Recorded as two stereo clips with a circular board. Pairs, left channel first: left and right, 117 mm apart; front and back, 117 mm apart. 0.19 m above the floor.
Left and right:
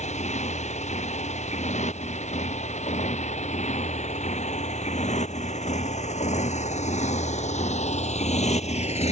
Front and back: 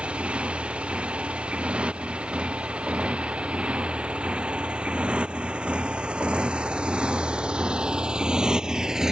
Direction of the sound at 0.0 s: 100° left.